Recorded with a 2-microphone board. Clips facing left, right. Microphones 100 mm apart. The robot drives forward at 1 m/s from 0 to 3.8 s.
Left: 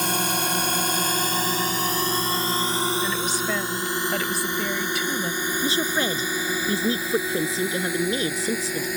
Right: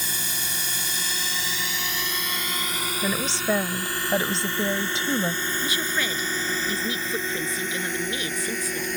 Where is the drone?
65° left (ahead or behind); by 9.0 s 5° left (ahead or behind).